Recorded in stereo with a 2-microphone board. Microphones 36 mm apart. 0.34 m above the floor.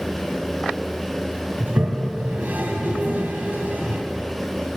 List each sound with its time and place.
1.6 s a toilet flushing: 65° right (ahead or behind), 1.4 m